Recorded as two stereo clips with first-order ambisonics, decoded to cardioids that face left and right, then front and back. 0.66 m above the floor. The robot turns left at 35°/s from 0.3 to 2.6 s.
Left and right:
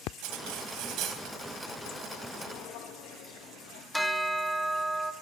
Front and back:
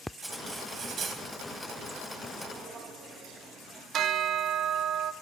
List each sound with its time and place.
0.2 s cutlery clinking: 100° right, 2 m; by 1.2 s 130° right, 2 m
2.5 s footsteps: 115° left, 4.5 m; by 3.8 s 100° left, 4 m
3.9 s a bell: straight behind, 0.7 m